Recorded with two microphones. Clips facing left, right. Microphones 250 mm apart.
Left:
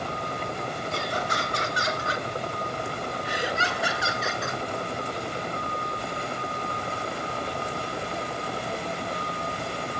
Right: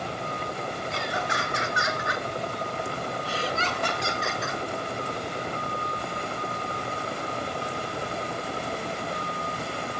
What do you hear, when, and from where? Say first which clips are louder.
0.9 s laughter: left 1 dB; 55° left (ahead or behind), 3 m; by 4.6 s 5° right (ahead or behind), 2.5 m